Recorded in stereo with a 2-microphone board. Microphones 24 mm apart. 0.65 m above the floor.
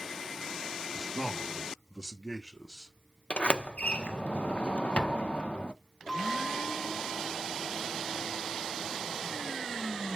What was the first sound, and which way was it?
A man speaking, 5° left (ahead or behind).